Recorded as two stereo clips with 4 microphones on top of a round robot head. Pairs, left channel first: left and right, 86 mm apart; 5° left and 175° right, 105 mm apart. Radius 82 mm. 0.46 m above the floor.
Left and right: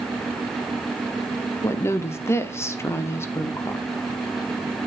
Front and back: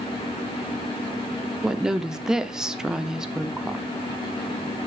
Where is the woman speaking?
105° left, 0.8 m.